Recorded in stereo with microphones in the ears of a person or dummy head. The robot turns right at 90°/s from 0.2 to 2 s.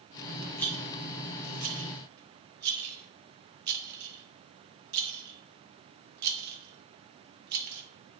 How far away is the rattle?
About 2.5 m.